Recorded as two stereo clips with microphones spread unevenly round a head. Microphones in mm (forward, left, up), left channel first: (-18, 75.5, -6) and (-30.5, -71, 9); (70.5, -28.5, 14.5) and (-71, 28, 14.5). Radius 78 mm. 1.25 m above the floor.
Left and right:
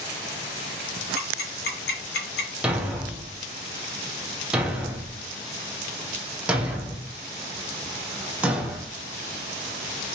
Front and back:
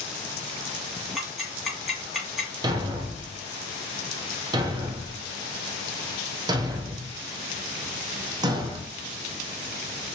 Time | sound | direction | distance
1.1 | ticking | 70° left | 1.7 m
2.6 | a thud | 160° right | 0.6 m